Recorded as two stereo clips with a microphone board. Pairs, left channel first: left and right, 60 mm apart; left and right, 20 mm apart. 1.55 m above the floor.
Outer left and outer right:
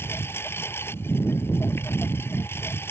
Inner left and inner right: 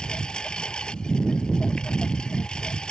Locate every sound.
0.0 s a lawn mower: 40° left (ahead or behind)